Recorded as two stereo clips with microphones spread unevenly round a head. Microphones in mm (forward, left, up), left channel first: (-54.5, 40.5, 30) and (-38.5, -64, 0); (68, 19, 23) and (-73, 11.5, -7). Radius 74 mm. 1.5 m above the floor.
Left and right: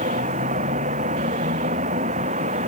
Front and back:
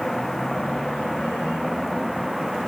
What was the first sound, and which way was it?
A vehicle, 85° right.